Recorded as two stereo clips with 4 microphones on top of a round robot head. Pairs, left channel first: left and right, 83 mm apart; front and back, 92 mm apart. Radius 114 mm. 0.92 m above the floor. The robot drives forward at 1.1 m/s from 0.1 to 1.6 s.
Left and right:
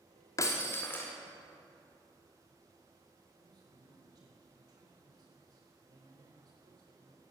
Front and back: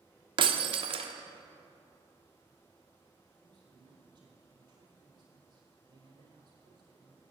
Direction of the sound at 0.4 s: 150° left.